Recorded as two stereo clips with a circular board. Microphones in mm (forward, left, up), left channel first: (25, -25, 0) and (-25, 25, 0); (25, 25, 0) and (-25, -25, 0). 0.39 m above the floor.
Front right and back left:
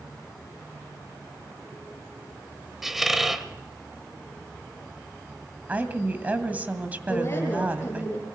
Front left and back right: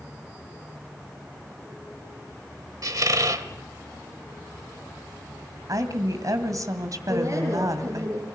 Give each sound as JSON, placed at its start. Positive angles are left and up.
{"t": 2.8, "sound": "a squeak", "azimuth_deg": -140, "distance_m": 1.2}
{"t": 5.7, "sound": "a woman speaking", "azimuth_deg": -160, "distance_m": 2.5}
{"t": 7.1, "sound": "a woman speaking", "azimuth_deg": -100, "distance_m": 8.0}